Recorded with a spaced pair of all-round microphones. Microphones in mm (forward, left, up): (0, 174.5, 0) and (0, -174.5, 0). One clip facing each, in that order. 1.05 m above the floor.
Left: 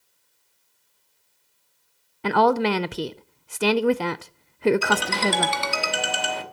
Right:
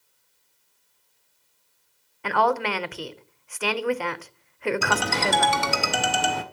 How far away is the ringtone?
About 1.2 m.